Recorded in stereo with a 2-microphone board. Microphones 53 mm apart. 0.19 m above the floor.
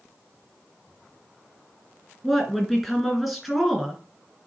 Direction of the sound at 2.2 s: 5° right (ahead or behind).